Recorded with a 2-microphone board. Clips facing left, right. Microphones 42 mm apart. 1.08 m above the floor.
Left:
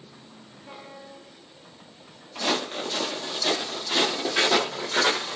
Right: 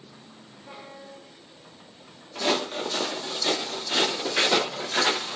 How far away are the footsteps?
About 1.1 m.